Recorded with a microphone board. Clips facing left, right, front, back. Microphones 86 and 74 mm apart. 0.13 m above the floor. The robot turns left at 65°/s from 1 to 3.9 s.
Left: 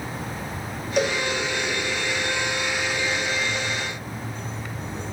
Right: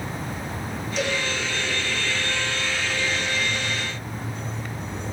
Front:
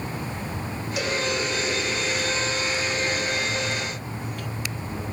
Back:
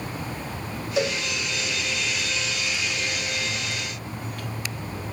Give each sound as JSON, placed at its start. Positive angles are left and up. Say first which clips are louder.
{"t": 1.0, "sound": "a cowbell", "louder": "left 4 dB, back 3 dB", "azimuth_deg": 115, "distance_m": 4.5}